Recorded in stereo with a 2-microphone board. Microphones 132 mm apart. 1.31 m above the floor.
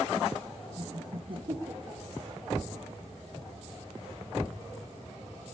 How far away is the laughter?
About 1.8 m.